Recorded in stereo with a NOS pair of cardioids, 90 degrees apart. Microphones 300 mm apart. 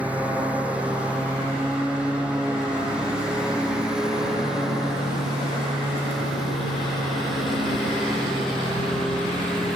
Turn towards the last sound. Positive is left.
turn(degrees=0)